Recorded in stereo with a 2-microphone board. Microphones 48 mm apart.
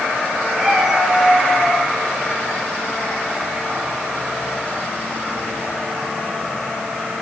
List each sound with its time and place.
0.6 s a cat meowing: centre (ahead or behind), 3.5 m; by 1.8 s 5° right (ahead or behind), 4.5 m